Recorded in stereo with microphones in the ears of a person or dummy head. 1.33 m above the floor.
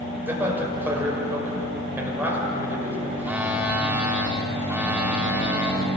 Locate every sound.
0.3 s a man speaking: 20° right (ahead or behind), 6.5 m
3.2 s a phone buzzing: centre (ahead or behind), 2.5 m